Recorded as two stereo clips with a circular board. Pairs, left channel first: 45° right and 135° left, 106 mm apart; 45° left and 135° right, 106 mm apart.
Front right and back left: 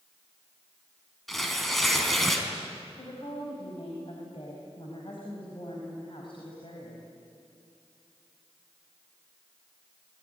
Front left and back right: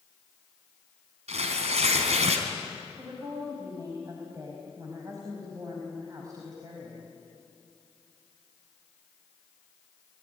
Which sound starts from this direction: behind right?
Tearing paper, at 1.3 s.